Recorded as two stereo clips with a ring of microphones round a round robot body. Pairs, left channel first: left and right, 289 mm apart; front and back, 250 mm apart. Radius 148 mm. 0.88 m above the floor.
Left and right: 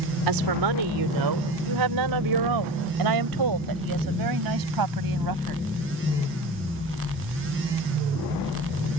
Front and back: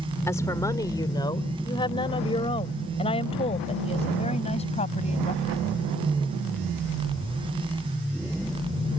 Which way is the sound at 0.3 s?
80° right.